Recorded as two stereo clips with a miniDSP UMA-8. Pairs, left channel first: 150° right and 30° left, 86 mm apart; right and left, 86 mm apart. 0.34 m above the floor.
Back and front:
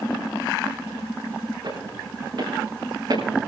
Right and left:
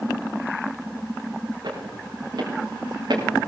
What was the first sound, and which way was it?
Footsteps, 55° left.